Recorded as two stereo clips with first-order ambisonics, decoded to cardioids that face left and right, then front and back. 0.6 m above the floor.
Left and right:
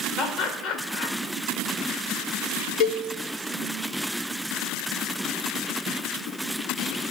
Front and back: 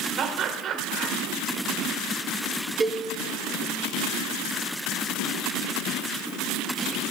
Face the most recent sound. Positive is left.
turn(degrees=105)